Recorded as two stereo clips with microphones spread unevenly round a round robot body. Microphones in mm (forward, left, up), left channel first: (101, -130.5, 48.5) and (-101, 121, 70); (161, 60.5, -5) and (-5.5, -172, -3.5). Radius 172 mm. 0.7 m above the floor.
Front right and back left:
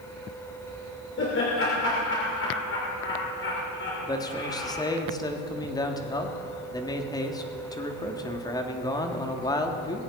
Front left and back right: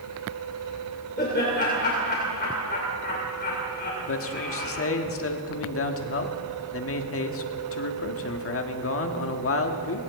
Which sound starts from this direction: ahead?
Laughter, at 1.2 s.